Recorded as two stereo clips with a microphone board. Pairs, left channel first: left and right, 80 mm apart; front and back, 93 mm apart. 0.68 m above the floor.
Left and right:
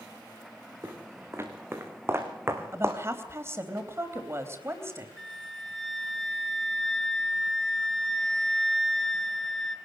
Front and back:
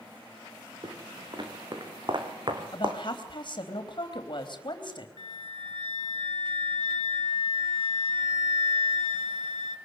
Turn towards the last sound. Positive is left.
turn(degrees=175)